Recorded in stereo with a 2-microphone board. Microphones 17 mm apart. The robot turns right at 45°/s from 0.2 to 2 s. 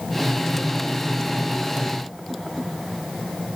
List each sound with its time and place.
Only background noise.